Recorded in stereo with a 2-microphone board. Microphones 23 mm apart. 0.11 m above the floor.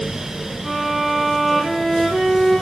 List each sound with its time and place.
0.6 s a violin: 10° right (ahead or behind), 4 m